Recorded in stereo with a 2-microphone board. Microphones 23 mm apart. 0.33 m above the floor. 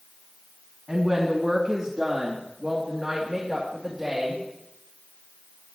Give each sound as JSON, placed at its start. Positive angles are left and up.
{"t": 0.9, "sound": "a woman speaking", "side_deg": -15, "distance_m": 2.5}